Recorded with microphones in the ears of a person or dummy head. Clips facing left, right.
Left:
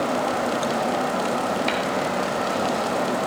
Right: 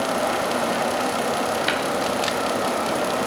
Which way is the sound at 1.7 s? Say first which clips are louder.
Even; 5° right (ahead or behind).